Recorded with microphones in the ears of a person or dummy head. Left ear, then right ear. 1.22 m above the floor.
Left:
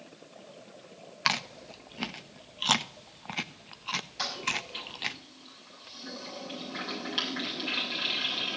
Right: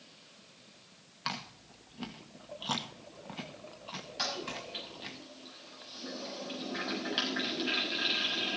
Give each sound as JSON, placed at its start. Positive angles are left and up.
{"t": 1.2, "sound": "chewing", "side_deg": 55, "distance_m": 0.6}
{"t": 4.2, "sound": "a toilet flushing", "side_deg": -10, "distance_m": 6.0}